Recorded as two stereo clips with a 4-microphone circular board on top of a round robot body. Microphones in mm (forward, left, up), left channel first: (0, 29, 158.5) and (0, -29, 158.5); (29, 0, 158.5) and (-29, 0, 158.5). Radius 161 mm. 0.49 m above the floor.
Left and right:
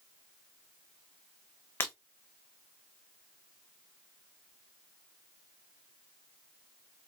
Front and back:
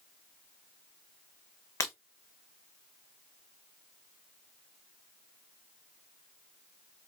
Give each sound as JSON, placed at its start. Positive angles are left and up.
{"t": 1.8, "sound": "breaking glass", "azimuth_deg": 35, "distance_m": 0.5}